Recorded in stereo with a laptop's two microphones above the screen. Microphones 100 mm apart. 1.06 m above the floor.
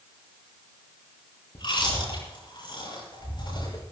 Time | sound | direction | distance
1.6 | chewing | 50° left (ahead or behind) | 10 m